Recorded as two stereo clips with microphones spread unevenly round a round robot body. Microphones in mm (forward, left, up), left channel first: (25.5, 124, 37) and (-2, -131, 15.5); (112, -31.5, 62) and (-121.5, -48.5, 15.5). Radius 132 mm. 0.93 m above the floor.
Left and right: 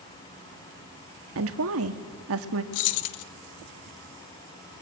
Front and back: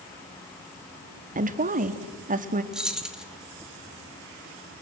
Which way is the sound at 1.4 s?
125° right.